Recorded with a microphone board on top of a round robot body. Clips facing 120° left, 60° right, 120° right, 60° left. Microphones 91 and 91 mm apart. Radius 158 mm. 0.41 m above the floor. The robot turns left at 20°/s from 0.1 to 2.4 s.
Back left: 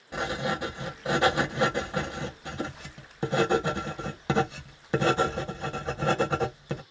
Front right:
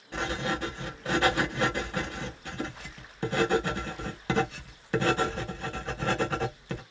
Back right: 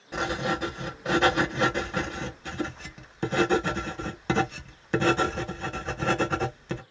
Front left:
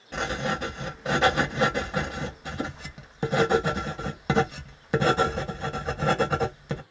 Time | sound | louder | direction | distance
0.1 | writing | back left 1 dB, back right 1 dB | 170° left | 1.2 m